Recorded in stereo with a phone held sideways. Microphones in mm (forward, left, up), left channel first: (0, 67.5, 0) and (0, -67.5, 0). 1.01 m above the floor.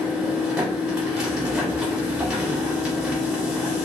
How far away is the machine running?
About 0.8 m.